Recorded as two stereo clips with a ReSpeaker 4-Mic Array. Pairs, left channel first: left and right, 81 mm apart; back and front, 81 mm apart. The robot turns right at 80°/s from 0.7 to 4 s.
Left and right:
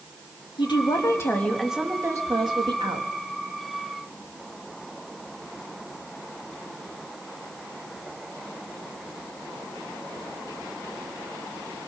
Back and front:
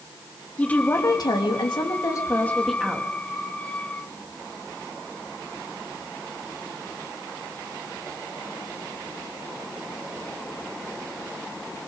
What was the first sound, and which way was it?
A woman speaking, 105° left.